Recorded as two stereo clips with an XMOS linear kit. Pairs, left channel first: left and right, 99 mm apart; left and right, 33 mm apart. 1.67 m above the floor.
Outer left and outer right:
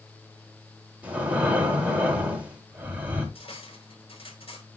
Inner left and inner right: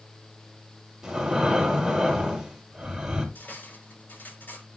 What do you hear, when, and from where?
1.0 s breathing: 15° right (ahead or behind), 3.5 m
3.4 s cutlery clinking: 70° left (ahead or behind), 5 m